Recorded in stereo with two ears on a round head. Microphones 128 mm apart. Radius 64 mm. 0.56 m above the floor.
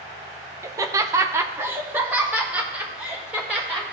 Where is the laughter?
20° right (ahead or behind), 0.6 m; by 3.9 s 5° right (ahead or behind), 2 m.